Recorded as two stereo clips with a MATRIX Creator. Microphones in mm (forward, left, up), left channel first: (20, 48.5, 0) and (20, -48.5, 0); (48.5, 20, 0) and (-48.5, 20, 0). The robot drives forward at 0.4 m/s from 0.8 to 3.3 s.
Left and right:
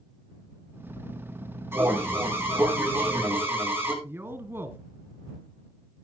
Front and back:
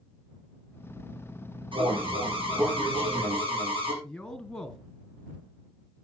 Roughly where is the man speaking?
Right.